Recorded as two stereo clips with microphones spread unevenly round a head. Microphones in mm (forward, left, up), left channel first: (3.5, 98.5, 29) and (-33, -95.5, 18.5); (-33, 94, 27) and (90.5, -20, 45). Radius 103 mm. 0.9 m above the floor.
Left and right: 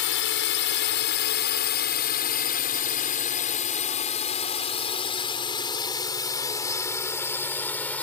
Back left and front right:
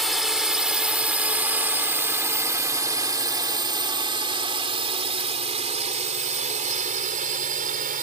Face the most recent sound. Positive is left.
turn(degrees=-5)